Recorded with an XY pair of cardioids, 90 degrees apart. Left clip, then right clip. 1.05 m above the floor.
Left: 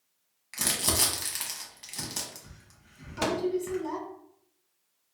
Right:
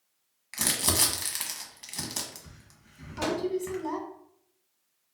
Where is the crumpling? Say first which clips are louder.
Right 1 dB; 15° right, 0.9 m.